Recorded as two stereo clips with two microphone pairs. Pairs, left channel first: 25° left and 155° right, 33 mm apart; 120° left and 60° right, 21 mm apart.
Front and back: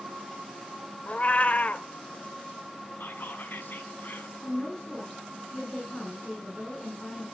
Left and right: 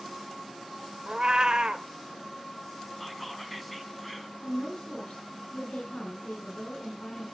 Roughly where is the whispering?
Ahead left.